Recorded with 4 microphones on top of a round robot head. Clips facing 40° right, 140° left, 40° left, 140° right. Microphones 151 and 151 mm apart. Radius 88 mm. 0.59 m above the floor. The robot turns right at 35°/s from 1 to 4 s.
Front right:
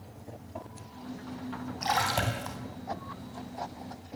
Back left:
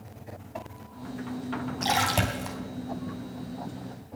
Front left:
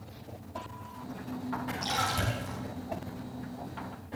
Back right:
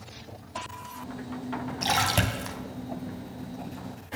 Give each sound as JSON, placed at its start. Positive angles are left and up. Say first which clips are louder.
{"t": 1.8, "sound": "a splash", "louder": "back left 2 dB, back right 8 dB", "azimuth_deg": -165, "distance_m": 4.0}